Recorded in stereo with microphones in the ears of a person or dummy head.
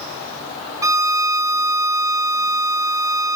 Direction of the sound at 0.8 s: 15° right (ahead or behind).